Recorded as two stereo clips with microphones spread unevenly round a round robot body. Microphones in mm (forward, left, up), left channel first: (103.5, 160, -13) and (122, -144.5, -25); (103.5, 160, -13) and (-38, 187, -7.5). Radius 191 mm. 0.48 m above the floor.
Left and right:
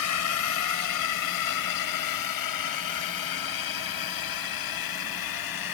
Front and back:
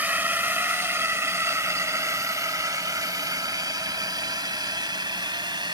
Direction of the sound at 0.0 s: 95° left.